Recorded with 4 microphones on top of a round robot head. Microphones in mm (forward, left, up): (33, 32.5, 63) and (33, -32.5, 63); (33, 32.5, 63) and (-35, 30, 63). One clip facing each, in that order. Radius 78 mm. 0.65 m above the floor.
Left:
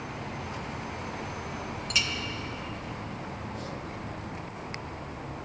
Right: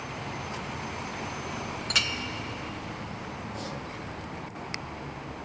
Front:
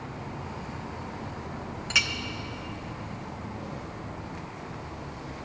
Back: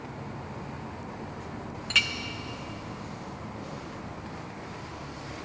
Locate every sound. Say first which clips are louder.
1.9 s a clink: right 1 dB, even; 75° right, 0.6 m